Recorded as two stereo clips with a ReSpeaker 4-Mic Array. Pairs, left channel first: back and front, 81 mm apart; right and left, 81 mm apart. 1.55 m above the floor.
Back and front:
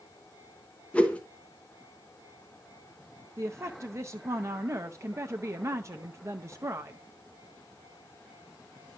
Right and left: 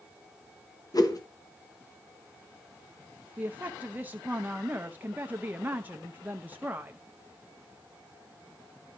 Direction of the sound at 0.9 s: 110° right.